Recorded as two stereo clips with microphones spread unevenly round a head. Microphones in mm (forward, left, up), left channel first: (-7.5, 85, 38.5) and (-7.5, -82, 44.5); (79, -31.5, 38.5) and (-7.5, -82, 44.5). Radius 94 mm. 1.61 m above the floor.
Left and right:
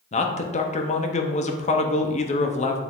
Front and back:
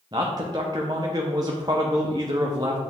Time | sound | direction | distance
0.1 | a man speaking | 140° left | 0.8 m